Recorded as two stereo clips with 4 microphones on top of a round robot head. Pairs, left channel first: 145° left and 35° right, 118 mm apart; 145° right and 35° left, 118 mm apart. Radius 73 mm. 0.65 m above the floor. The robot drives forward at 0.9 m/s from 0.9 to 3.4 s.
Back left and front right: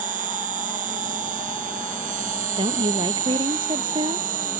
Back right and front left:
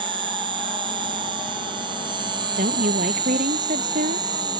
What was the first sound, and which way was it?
An insect, 15° right.